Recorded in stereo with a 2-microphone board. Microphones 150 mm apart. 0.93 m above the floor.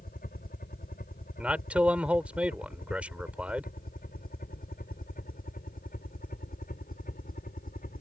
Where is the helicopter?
70° left (ahead or behind); by 8.0 s 65° left (ahead or behind).